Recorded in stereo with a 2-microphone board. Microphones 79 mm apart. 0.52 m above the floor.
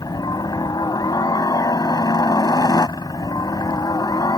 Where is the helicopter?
55° left (ahead or behind).